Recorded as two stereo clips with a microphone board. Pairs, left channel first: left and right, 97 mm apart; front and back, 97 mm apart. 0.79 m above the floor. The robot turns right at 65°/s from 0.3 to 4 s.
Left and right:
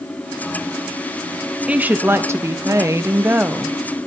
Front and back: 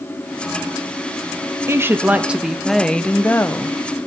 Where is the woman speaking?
155° right, 0.7 m; by 3.8 s 15° right, 0.7 m.